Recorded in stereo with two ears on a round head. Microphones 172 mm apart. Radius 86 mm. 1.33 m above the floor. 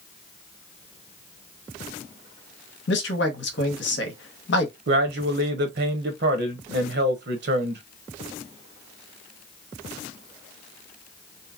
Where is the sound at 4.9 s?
60° right (ahead or behind), 0.8 m.